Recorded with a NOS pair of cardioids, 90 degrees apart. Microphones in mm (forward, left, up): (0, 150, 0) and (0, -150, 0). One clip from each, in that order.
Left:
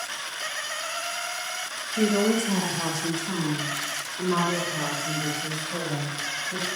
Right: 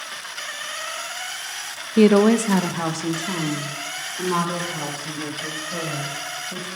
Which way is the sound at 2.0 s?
70° right.